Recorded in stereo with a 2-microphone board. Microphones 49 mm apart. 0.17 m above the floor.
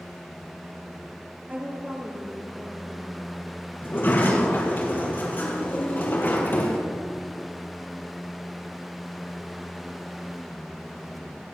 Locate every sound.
1.5 s a woman speaking: 35° right (ahead or behind), 4 m; by 3.5 s 65° right (ahead or behind), 3 m
3.8 s a sliding door: 40° left (ahead or behind), 5 m